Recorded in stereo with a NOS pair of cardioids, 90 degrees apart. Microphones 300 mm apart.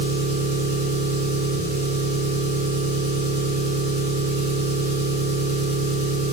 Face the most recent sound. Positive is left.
turn(degrees=-55)